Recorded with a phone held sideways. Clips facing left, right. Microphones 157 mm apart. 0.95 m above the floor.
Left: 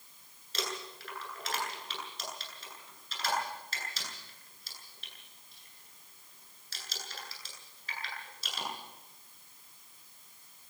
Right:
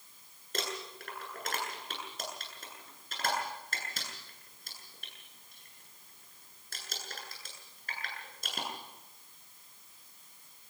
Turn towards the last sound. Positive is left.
turn(degrees=-50)  # may be behind; listen again after turning